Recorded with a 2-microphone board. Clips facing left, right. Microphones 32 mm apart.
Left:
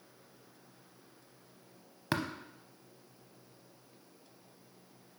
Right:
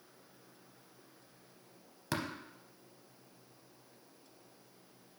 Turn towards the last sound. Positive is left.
turn(degrees=25)  # may be behind; listen again after turning